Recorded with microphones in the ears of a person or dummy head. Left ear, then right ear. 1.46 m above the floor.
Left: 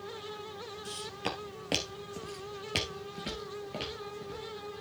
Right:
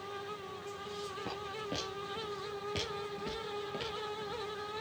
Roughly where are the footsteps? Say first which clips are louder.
Left 5 dB; left.